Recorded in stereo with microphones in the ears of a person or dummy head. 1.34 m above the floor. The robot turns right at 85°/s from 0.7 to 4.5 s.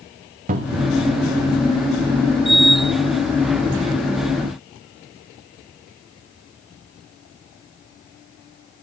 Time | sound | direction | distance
0.5 | a cupboard door | 45° right (ahead or behind) | 1.5 m